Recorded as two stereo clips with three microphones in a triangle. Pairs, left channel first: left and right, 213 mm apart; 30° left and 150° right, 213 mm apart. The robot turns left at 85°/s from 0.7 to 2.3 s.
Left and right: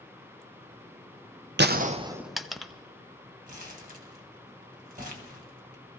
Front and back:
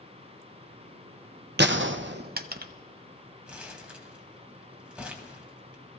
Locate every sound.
1.6 s a gunshot: 120° right, 0.5 m; by 2.7 s straight behind, 0.5 m
3.5 s crumpling: 65° right, 1.6 m